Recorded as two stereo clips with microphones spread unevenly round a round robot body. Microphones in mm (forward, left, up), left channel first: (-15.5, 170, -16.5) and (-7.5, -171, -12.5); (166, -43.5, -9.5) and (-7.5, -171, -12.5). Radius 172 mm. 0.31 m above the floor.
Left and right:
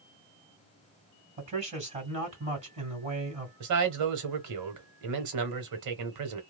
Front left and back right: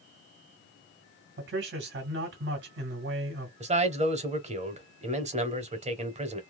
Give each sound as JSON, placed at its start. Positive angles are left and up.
{"t": 1.4, "sound": "a man speaking", "azimuth_deg": -155, "distance_m": 1.9}
{"t": 3.6, "sound": "a man speaking", "azimuth_deg": -95, "distance_m": 1.2}